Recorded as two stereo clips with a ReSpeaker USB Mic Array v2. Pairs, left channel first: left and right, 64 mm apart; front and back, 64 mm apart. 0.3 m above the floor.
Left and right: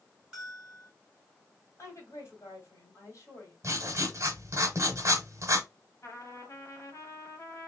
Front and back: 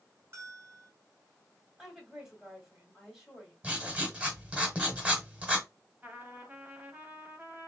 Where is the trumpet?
120° left, 1.0 m.